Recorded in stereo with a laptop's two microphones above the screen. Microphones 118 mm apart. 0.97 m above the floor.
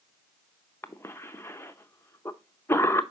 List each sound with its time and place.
0.8 s a cough: 20° left (ahead or behind), 0.6 m